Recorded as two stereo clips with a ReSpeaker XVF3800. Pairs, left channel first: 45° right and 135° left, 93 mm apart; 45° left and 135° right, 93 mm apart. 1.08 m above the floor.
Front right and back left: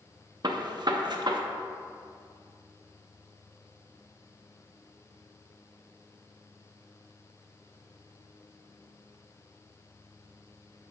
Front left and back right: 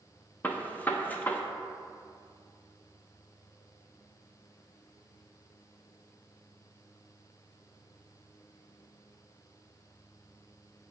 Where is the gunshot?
115° left, 0.6 m.